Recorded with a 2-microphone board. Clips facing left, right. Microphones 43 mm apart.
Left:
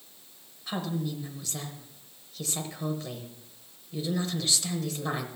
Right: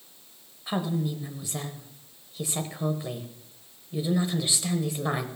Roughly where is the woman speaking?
Centre.